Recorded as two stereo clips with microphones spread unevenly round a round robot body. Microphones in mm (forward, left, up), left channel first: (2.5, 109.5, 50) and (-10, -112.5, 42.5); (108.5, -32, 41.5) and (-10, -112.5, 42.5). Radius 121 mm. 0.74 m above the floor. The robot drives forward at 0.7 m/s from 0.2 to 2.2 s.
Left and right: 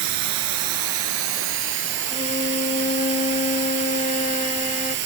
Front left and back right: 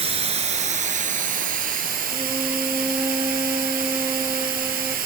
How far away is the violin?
About 0.6 m.